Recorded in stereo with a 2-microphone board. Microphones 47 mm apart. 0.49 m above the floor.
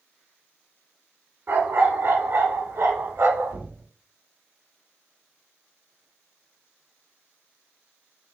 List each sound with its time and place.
1.5 s a dog barking: 55° right (ahead or behind), 1.5 m; by 3.5 s 75° right (ahead or behind), 1.3 m
3.5 s knocking: 55° right (ahead or behind), 1.5 m